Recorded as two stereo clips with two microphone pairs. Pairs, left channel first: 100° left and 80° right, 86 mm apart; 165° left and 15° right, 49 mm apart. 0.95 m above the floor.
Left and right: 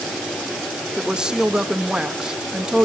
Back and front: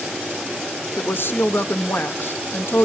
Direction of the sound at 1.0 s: 155° right.